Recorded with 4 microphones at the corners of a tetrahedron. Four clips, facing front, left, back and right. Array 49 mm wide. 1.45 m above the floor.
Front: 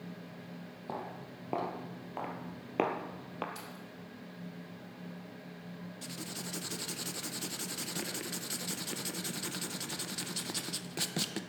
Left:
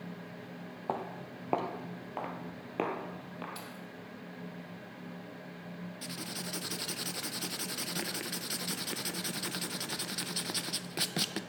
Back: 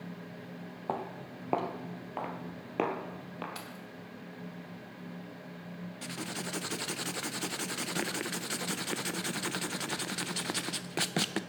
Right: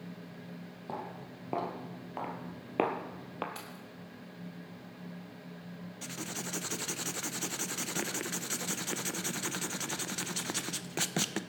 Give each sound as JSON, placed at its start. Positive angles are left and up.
{"t": 0.9, "sound": "footsteps", "azimuth_deg": 130, "distance_m": 2.0}
{"t": 3.5, "sound": "keys jangling", "azimuth_deg": -150, "distance_m": 2.5}
{"t": 6.0, "sound": "writing", "azimuth_deg": -150, "distance_m": 0.6}